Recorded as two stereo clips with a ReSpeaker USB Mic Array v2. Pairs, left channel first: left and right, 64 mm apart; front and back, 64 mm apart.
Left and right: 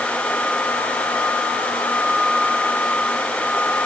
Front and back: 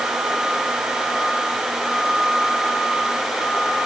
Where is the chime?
No chime in this recording.